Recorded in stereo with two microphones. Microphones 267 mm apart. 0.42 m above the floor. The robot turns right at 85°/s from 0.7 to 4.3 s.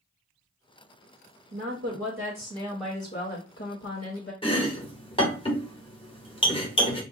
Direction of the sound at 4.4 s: 20° left (ahead or behind).